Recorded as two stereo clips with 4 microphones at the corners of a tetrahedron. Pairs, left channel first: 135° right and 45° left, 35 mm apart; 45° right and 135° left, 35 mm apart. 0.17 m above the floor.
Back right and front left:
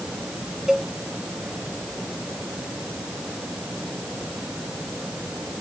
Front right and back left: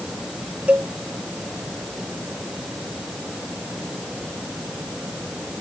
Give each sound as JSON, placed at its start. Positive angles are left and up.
{"t": 0.7, "sound": "a cowbell", "azimuth_deg": 110}